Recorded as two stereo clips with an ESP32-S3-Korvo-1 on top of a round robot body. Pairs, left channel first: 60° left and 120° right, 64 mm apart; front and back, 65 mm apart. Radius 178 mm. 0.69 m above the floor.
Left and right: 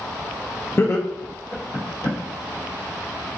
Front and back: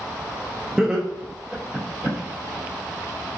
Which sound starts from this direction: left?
Laughter, at 0.8 s.